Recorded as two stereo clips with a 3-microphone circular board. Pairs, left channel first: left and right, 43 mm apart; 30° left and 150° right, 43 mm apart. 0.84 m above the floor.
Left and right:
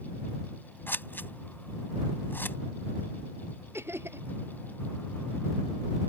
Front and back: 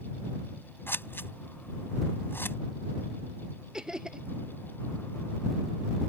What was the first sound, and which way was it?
Scissors, 55° left.